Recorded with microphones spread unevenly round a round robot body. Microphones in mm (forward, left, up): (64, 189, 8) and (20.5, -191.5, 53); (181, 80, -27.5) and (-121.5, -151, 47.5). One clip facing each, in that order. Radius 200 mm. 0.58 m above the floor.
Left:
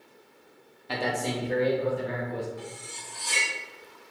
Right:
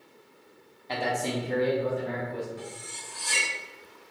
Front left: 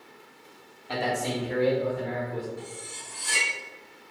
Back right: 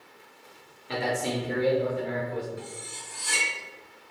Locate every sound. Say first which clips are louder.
0.9 s a man speaking: even, even; 110° left, 0.7 m; by 2.5 s 125° right, 1.8 m
2.6 s cutlery clinking: even, even; 135° right, 1.4 m